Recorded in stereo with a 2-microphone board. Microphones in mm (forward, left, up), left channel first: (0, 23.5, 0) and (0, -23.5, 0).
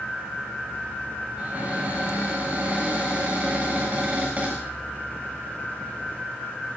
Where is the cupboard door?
35° right (ahead or behind), 8.5 m.